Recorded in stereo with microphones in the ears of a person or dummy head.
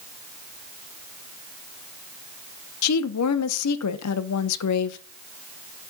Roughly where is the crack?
I don't hear a crack.